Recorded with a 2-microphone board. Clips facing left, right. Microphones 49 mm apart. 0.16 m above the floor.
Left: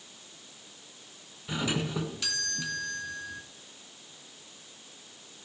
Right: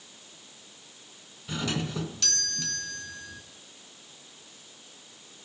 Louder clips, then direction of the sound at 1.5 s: Left 1 dB; 10° left (ahead or behind).